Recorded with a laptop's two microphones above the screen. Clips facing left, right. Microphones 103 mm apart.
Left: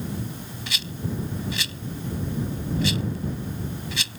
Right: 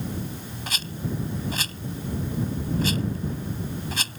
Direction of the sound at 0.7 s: 45° right (ahead or behind).